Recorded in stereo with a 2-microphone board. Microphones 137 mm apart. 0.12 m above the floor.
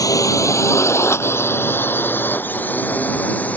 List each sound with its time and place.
0.0 s a drone: 25° left (ahead or behind); by 3.6 s 10° left (ahead or behind)